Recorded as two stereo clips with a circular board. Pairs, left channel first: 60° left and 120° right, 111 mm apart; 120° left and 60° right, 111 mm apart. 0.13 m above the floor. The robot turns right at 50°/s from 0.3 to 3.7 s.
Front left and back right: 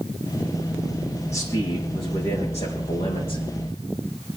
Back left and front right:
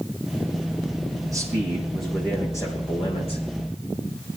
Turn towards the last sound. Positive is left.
turn(degrees=115)